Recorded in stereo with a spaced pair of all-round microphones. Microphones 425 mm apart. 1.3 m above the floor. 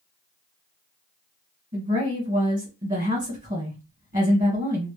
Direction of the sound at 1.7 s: 20° right (ahead or behind).